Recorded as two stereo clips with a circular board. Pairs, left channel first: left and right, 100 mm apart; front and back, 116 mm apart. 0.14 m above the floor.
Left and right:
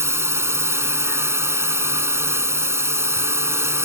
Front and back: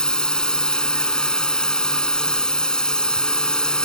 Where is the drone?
75° right.